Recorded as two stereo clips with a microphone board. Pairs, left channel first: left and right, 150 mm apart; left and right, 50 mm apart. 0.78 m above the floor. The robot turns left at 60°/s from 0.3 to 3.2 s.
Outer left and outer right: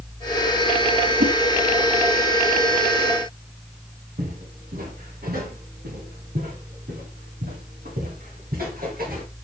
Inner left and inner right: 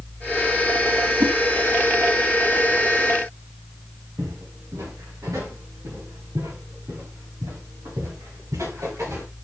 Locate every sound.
1.2 s a whoosh: 65° right (ahead or behind), 2.5 m; by 1.3 s 75° right (ahead or behind), 2.5 m
4.2 s footsteps: 85° right, 8.5 m; by 9.2 s 80° right, 10.5 m